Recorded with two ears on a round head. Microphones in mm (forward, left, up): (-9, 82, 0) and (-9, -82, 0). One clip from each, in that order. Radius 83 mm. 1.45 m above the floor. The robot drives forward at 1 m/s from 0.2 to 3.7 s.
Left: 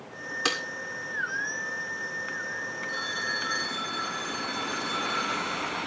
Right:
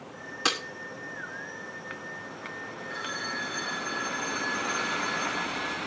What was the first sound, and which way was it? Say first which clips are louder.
Breaking glass: right 1 dB; centre (ahead or behind).